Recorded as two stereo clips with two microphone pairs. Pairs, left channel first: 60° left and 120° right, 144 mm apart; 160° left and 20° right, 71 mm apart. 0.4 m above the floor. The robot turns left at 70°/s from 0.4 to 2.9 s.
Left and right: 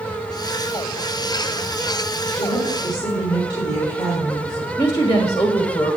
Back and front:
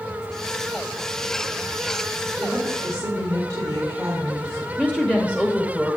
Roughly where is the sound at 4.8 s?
Ahead left.